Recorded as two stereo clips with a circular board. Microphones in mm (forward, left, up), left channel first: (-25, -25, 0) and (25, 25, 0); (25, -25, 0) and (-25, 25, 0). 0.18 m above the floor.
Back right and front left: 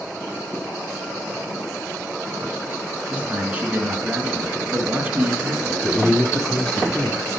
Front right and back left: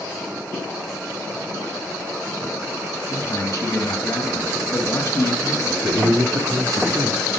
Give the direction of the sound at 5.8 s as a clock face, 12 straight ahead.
7 o'clock.